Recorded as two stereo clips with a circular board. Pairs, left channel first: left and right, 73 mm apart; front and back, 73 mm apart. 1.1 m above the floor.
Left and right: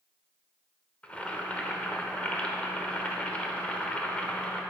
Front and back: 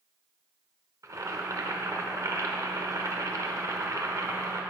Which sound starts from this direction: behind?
Boiling, at 1.0 s.